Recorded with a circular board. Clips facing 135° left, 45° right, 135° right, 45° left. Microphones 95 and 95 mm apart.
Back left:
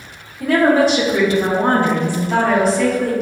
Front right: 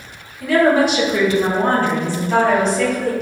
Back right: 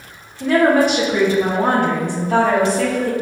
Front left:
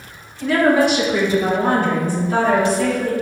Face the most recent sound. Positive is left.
turn(degrees=-135)